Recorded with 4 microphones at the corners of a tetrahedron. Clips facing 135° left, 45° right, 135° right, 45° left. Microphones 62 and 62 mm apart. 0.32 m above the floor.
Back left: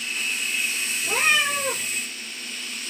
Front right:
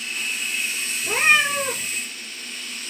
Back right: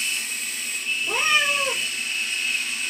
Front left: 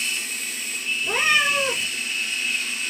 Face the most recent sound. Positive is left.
turn(degrees=10)